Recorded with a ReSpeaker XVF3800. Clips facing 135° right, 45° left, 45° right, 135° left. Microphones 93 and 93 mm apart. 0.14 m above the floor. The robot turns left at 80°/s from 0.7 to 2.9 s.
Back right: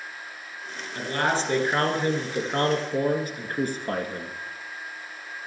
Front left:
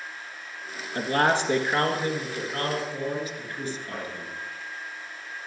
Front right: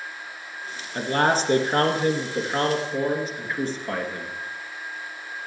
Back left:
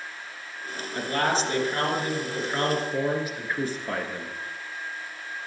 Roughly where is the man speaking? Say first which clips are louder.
Front left 3 dB, front right 4 dB; ahead.